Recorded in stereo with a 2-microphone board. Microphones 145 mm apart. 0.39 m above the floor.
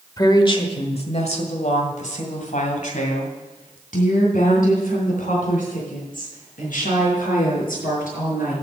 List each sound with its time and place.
0.2 s a woman speaking: 25° left (ahead or behind), 1.2 m; by 8.5 s 80° left, 6 m